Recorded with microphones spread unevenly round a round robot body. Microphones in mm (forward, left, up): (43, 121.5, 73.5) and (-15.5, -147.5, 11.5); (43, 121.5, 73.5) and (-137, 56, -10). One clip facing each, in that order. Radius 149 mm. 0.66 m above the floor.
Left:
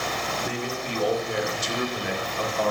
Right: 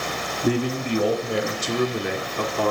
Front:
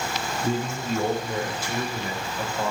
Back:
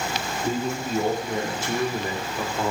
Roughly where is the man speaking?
Right.